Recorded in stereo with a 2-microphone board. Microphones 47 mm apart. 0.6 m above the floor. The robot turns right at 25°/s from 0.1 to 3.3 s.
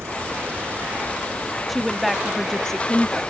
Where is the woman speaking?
Centre (ahead or behind); by 3.2 s 15° left (ahead or behind).